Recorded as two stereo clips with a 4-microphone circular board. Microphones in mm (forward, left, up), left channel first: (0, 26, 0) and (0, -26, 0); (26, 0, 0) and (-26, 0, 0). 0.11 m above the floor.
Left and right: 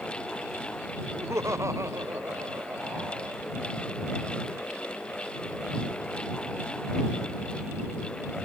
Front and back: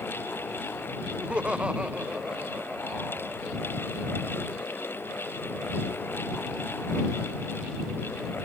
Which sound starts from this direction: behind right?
Laughter, at 1.1 s.